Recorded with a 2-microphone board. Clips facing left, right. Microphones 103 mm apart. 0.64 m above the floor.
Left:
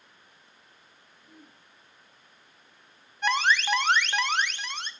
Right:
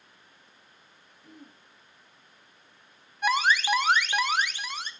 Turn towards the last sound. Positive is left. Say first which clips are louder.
# right 1 dB
turn(degrees=-5)  # may be behind; listen again after turning